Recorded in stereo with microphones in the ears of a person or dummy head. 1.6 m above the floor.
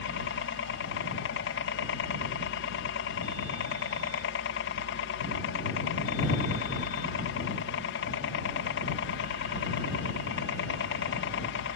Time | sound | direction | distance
0.0 | a helicopter | 60° left (ahead or behind) | ?